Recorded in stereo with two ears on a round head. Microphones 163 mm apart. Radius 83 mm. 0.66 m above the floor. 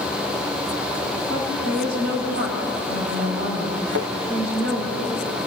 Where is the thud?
80° right, 4.5 m.